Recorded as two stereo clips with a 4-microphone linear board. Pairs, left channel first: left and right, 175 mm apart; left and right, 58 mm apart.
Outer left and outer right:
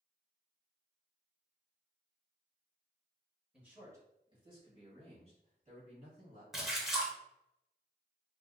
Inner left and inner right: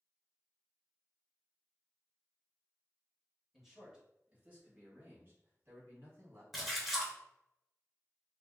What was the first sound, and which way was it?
A man speaking, 5° right (ahead or behind).